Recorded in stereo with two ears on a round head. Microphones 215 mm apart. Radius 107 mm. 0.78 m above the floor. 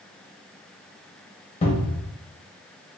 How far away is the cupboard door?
About 0.7 m.